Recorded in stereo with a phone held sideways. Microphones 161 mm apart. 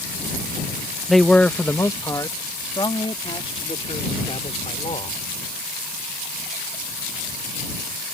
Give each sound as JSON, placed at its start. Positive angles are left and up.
{"t": 1.1, "sound": "a man speaking", "side_deg": 0}